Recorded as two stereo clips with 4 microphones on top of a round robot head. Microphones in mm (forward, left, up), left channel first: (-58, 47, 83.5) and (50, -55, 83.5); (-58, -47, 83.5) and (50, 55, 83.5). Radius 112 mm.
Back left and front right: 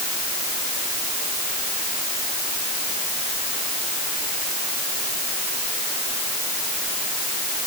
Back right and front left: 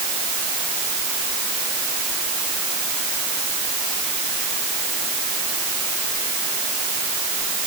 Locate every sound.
Only background noise.